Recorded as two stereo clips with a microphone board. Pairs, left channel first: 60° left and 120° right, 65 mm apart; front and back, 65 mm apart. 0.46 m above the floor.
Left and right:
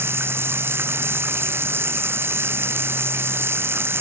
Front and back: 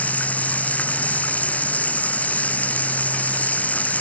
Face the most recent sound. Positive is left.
turn(degrees=-70)